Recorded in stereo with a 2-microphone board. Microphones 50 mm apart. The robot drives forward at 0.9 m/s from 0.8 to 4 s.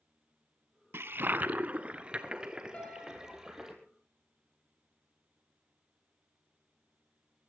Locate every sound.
0.9 s a toilet flushing: 60° right (ahead or behind), 0.6 m; by 3.7 s 10° right (ahead or behind), 2.5 m
2.7 s a piano: 25° left (ahead or behind), 4 m